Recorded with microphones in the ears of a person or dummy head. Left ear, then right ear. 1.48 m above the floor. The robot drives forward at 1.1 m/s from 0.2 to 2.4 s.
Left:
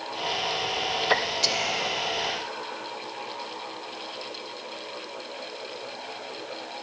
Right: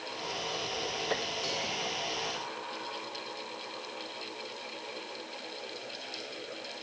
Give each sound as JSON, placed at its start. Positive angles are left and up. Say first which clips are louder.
{"t": 1.4, "sound": "whispering", "louder": "left 8 dB", "side_deg": 75, "distance_m": 0.8}